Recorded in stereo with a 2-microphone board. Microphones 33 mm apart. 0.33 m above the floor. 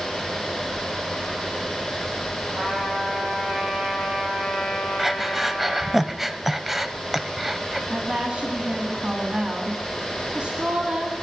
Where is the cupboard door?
I don't hear a cupboard door.